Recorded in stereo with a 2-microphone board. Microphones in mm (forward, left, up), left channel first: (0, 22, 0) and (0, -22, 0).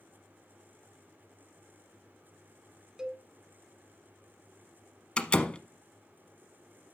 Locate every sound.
3.0 s a cowbell: 15° right (ahead or behind), 0.9 m
5.2 s a door slam: 25° left (ahead or behind), 0.8 m